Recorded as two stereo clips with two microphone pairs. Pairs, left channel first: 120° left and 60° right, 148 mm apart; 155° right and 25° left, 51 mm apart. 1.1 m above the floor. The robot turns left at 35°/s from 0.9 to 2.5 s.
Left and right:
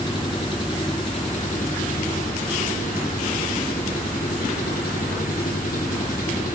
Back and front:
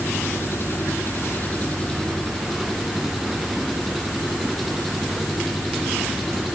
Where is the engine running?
175° left, 2.5 m; by 6.6 s 120° left, 2.5 m.